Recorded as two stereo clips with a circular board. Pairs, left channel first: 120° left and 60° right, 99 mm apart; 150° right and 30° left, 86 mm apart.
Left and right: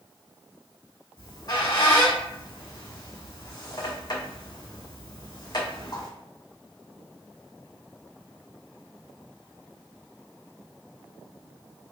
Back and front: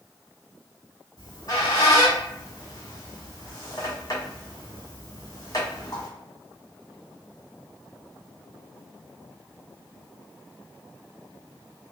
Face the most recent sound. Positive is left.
turn(degrees=165)